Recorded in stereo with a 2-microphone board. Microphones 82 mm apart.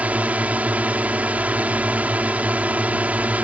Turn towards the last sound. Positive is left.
turn(degrees=-20)  # may be behind; listen again after turning